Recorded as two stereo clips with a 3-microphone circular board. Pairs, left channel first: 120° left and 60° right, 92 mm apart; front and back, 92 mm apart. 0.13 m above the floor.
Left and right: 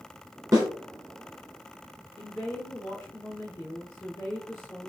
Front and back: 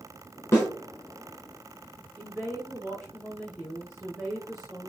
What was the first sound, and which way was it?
A snare drum, 45° right.